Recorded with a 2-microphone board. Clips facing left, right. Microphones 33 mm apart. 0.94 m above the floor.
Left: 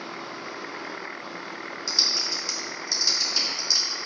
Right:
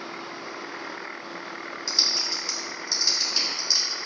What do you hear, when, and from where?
1.9 s typing on a keyboard: 10° right (ahead or behind), 2.5 m